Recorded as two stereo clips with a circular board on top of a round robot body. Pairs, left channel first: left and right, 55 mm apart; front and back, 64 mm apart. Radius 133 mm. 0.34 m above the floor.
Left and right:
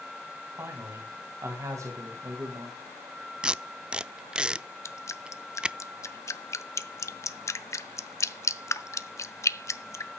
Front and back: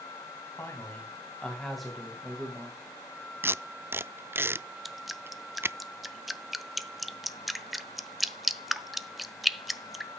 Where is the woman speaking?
55° right, 3.5 m; by 2.8 s 120° right, 3.5 m.